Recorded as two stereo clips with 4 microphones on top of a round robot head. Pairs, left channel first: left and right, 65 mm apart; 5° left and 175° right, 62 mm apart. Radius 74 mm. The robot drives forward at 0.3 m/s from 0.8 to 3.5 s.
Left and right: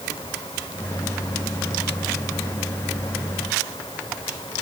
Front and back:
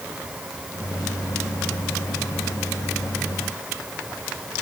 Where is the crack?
No crack in this recording.